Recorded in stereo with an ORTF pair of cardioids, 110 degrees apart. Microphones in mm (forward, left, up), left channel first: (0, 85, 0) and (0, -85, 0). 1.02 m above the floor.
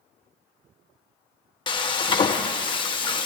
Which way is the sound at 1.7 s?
30° left.